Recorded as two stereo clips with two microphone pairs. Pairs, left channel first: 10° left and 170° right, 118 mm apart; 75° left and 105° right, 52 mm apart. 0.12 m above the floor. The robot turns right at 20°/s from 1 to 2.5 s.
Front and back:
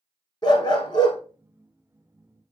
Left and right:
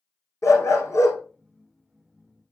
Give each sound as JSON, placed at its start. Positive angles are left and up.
{"t": 0.4, "sound": "a dog barking", "azimuth_deg": 60, "distance_m": 3.0}